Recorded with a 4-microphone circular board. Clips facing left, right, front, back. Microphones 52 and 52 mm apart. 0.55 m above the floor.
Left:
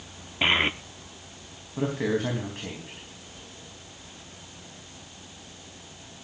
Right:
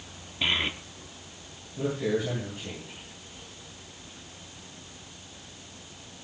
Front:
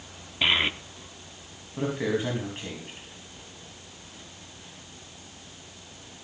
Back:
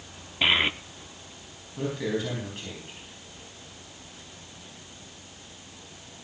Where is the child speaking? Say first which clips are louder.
Left 5 dB, back 1 dB; 105° left, 0.6 m.